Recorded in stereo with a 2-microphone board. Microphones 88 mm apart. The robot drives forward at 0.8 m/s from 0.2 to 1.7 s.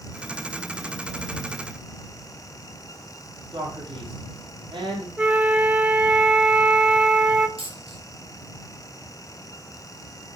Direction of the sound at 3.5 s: 60° right (ahead or behind).